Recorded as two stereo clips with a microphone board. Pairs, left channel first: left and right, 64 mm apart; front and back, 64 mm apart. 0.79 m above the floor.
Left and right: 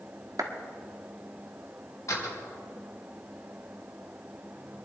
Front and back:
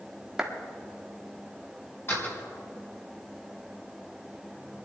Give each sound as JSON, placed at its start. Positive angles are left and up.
{"t": 0.4, "sound": "a clap", "azimuth_deg": -100, "distance_m": 1.4}
{"t": 2.1, "sound": "a door slam", "azimuth_deg": 50, "distance_m": 3.5}